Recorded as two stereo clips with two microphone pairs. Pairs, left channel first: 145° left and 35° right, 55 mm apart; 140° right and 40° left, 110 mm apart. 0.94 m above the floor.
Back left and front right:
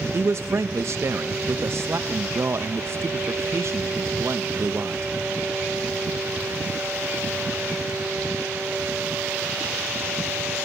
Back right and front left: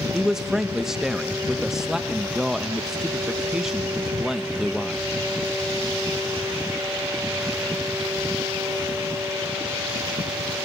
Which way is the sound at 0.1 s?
45° right.